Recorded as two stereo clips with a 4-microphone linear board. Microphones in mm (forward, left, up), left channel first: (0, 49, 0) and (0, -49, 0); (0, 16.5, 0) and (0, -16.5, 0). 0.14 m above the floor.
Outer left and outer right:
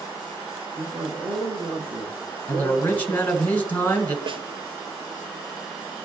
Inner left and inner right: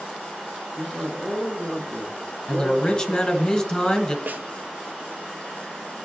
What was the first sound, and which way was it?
A man speaking, 50° right (ahead or behind).